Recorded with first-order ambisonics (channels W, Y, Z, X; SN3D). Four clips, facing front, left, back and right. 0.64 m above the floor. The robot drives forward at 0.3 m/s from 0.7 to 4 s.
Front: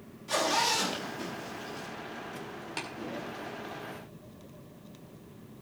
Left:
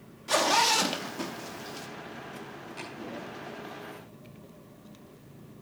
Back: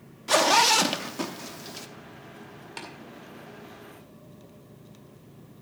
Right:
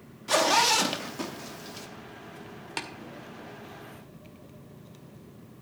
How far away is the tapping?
About 1.9 m.